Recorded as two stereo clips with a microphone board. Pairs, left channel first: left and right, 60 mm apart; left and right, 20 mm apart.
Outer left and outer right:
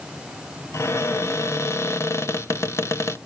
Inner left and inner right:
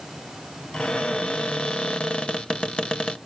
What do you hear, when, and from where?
0.7 s a cupboard door: 50° left (ahead or behind), 0.7 m